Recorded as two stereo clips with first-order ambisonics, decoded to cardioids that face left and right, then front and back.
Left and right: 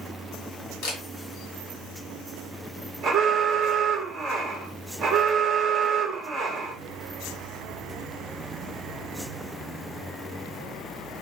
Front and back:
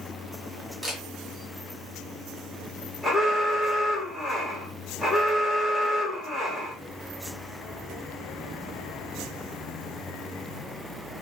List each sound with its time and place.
0.8 s a camera shutter: 95° left, 1.3 m
3.0 s an alarm: 70° right, 1.0 m